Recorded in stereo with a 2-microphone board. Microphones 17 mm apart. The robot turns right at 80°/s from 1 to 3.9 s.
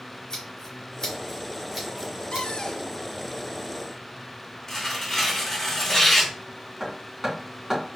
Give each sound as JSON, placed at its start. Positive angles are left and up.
{"t": 0.3, "sound": "scissors", "side_deg": 45, "distance_m": 1.9}
{"t": 2.3, "sound": "a cupboard door", "azimuth_deg": 115, "distance_m": 0.5}
{"t": 4.7, "sound": "tearing paper", "side_deg": 25, "distance_m": 1.5}
{"t": 6.8, "sound": "hammering", "side_deg": -25, "distance_m": 3.0}